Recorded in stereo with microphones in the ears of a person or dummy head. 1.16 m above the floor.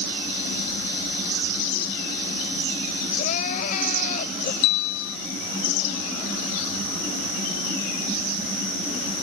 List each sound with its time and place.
3.2 s crying: 45° left (ahead or behind)
4.6 s a bell: 70° left (ahead or behind)